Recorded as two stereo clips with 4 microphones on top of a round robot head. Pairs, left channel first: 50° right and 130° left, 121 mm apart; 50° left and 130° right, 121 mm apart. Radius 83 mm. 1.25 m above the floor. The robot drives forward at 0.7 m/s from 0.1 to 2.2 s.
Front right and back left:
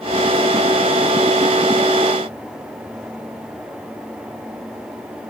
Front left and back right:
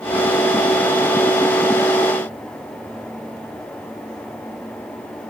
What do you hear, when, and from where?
Only background noise.